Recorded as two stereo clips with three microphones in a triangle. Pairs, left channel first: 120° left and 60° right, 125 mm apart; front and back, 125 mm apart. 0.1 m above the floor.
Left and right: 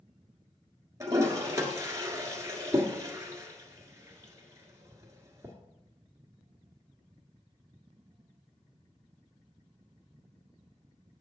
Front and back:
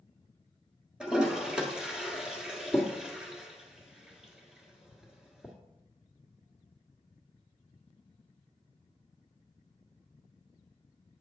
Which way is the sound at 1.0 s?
100° right.